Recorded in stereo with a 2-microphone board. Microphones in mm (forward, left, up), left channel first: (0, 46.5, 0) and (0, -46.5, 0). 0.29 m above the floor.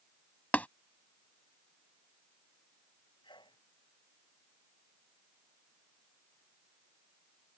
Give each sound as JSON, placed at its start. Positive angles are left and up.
{"t": 0.5, "sound": "tapping", "side_deg": 20}
{"t": 3.2, "sound": "a sneeze", "side_deg": 60}